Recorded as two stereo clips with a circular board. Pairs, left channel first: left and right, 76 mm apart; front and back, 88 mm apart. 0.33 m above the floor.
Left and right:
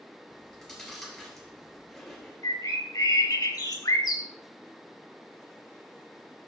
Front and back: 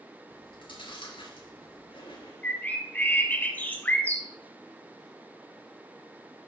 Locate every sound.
0.3 s chewing: straight ahead, 3.5 m
2.4 s a bird: 70° left, 1.6 m